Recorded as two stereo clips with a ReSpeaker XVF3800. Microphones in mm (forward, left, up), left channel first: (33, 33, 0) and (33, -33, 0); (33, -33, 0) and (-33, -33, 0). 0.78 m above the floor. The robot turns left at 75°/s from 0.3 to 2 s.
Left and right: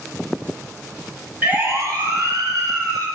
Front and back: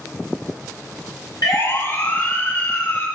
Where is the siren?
20° right, 7 m; by 3.1 s 70° right, 9 m.